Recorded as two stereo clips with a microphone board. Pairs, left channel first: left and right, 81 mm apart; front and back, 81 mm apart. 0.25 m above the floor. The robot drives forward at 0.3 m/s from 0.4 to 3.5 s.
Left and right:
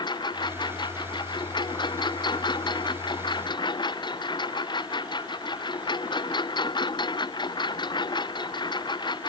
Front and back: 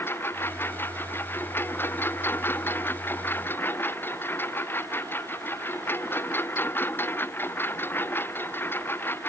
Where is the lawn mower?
65° left.